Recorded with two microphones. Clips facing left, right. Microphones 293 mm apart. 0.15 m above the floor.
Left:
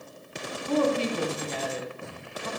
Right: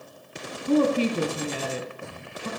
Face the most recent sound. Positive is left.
turn(degrees=-35)  # may be behind; listen again after turning